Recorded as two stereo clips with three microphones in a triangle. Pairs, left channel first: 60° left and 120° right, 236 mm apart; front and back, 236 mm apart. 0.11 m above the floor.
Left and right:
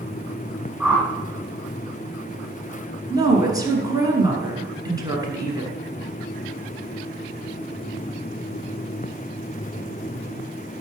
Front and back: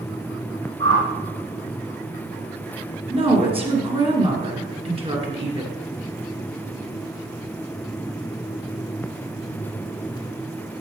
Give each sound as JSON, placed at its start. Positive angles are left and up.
{"t": 0.8, "sound": "a whoosh", "azimuth_deg": 160, "distance_m": 2.5}
{"t": 3.1, "sound": "a woman speaking", "azimuth_deg": -170, "distance_m": 1.7}